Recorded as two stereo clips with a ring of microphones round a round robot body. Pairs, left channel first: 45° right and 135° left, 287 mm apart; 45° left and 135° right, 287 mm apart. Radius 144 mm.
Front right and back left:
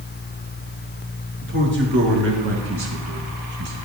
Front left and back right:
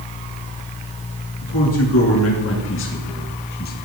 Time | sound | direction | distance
1.4 | a man speaking | 80° left | 5.5 m